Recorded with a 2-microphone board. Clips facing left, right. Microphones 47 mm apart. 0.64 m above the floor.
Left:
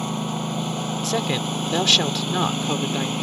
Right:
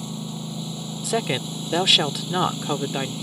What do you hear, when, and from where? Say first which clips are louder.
0.0 s a lawn mower: left 6 dB; 60° left (ahead or behind)
1.0 s a woman speaking: right 1 dB; 10° right (ahead or behind)